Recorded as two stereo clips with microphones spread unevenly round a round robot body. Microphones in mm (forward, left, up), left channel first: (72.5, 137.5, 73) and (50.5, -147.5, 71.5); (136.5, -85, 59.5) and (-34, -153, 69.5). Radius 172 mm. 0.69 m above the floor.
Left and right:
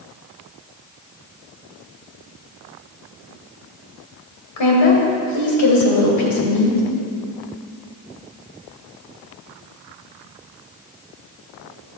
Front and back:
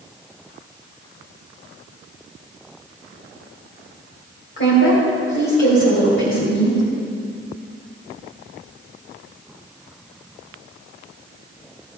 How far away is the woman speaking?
About 3 m.